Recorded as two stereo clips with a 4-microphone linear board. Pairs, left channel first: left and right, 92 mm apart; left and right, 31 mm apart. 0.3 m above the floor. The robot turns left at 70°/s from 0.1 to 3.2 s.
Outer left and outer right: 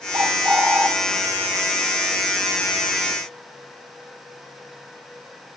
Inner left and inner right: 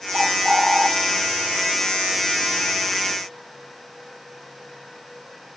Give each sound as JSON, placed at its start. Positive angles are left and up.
{"t": 0.1, "sound": "a bird", "azimuth_deg": -125, "distance_m": 1.3}